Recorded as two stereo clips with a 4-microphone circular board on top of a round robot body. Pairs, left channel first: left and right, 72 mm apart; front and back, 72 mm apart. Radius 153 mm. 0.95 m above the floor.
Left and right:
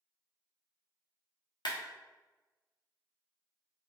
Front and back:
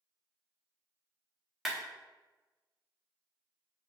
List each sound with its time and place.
1.6 s a clap: 95° left, 1.0 m